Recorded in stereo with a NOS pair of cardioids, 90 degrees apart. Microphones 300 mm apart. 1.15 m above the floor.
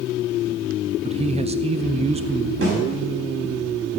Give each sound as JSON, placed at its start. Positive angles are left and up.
{"t": 1.0, "sound": "a man speaking", "azimuth_deg": -20, "distance_m": 0.6}
{"t": 2.6, "sound": "a snare drum", "azimuth_deg": -45, "distance_m": 7.0}